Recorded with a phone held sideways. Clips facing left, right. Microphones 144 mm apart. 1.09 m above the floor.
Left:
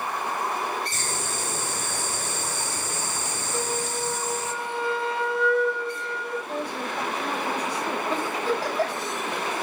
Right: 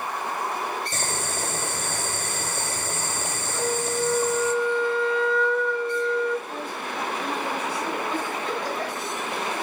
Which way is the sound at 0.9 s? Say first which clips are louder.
Right 2 dB; 55° right (ahead or behind).